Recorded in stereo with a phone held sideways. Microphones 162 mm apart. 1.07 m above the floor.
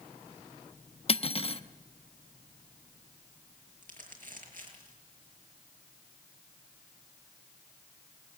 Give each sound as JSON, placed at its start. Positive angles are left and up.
{"t": 1.1, "sound": "cutlery clinking", "side_deg": 40, "distance_m": 0.6}
{"t": 3.8, "sound": "crumpling", "side_deg": -60, "distance_m": 5.5}